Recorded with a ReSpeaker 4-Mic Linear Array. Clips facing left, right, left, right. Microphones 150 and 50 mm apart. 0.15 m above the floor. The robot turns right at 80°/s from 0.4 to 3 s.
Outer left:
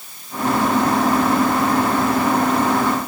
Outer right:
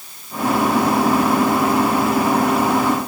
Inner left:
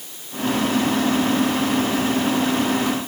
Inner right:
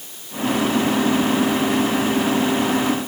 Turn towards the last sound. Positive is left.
No sound to turn to.